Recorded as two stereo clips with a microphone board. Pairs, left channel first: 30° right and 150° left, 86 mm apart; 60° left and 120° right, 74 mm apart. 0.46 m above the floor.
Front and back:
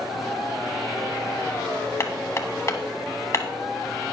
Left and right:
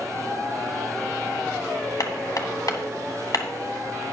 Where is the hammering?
25° left, 1.3 m.